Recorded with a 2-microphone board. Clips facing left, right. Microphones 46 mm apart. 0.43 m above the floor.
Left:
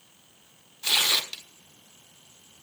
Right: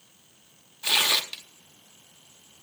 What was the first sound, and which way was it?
Tearing paper, 15° right (ahead or behind).